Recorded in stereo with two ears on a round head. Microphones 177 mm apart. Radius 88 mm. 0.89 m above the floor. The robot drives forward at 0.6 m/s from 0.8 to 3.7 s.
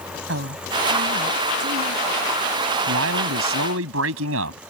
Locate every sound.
0.3 s a woman speaking: 60° right (ahead or behind); by 2.0 s 65° right (ahead or behind)
2.9 s a man speaking: 80° right; by 4.6 s 75° right (ahead or behind)